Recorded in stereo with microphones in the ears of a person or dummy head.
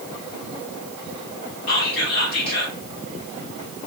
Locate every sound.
1.7 s whispering: 50° left (ahead or behind), 1.9 m